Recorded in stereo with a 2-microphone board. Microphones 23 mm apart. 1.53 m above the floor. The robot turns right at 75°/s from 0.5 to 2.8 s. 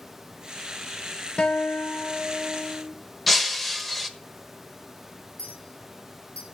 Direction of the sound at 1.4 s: 50° left.